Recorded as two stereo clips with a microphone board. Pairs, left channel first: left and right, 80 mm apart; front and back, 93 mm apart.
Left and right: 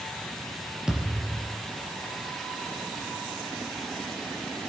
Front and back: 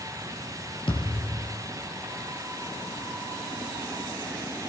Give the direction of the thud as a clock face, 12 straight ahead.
12 o'clock.